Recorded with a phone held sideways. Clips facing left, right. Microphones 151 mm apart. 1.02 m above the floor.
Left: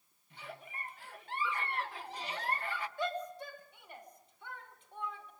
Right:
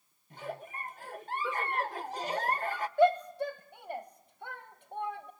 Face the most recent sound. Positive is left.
turn(degrees=-45)  # may be behind; listen again after turning